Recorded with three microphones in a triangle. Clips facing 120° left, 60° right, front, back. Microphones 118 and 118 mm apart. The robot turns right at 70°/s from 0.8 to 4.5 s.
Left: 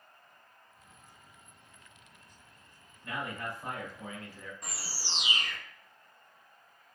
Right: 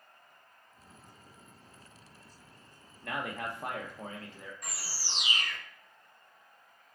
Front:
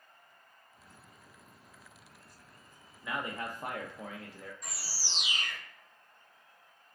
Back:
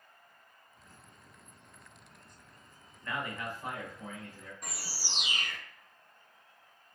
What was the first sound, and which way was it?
A man speaking, 85° right.